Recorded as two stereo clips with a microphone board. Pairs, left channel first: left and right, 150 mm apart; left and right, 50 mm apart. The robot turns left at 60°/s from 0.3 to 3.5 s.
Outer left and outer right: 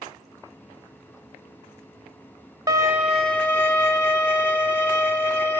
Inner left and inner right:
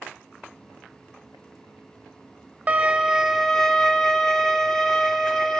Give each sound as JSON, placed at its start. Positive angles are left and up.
{"t": 2.7, "sound": "a violin", "azimuth_deg": -150, "distance_m": 0.9}